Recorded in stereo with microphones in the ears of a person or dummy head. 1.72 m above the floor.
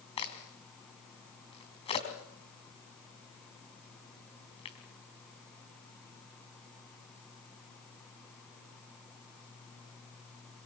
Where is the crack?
30° left (ahead or behind), 4 m.